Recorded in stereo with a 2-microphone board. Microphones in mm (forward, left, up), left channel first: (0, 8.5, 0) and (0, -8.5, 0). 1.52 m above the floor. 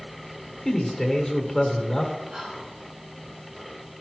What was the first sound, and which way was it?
A man speaking, 15° left (ahead or behind).